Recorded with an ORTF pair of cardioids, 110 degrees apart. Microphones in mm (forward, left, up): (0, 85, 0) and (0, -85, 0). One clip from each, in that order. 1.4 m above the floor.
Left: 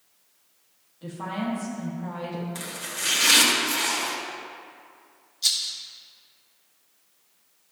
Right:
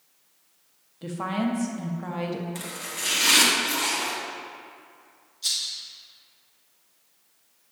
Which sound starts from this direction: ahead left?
A rattle, at 5.4 s.